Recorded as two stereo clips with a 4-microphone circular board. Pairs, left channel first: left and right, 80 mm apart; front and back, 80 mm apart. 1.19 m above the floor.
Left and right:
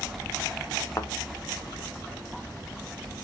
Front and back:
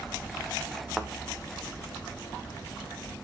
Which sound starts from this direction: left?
A thud, at 1.0 s.